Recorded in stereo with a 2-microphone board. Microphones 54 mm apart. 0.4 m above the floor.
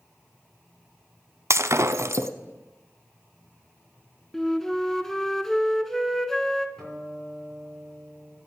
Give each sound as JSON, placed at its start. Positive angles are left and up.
{"t": 1.5, "sound": "breaking glass", "side_deg": -65, "distance_m": 0.7}
{"t": 4.3, "sound": "a flute", "side_deg": 5, "distance_m": 0.9}
{"t": 6.8, "sound": "a guitar", "side_deg": 10, "distance_m": 6.5}